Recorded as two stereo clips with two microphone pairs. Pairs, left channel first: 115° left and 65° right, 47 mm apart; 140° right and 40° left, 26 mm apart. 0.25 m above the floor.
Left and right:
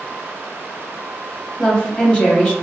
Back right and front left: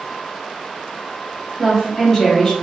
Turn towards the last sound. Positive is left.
turn(degrees=165)